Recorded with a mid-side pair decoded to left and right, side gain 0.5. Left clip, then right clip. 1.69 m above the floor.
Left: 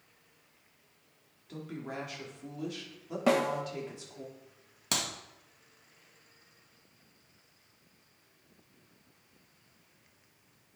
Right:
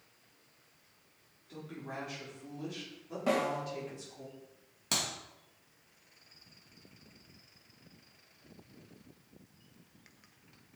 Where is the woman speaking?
35° left, 4 m.